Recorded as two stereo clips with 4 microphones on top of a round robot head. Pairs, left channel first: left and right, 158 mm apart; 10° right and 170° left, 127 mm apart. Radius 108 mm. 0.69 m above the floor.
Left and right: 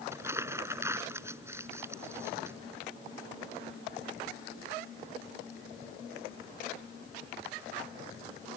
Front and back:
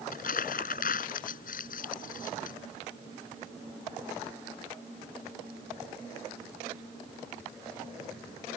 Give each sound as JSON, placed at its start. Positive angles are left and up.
{"t": 0.1, "sound": "crumpling", "azimuth_deg": -15}